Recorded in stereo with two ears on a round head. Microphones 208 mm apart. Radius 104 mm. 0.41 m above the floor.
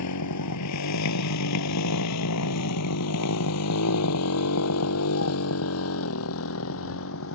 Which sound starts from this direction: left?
A motorcycle, at 0.0 s.